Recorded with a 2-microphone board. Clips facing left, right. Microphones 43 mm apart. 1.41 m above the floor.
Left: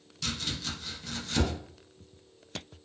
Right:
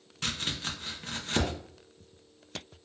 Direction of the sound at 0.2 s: 40° right (ahead or behind).